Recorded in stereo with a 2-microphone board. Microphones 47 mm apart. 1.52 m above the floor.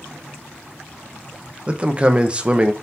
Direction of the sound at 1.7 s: 25° right (ahead or behind).